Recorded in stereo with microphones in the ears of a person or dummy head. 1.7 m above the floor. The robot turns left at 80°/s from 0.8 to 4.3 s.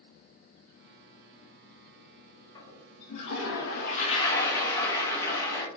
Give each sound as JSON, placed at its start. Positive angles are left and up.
{"t": 2.5, "sound": "a toilet flushing", "azimuth_deg": 160, "distance_m": 1.0}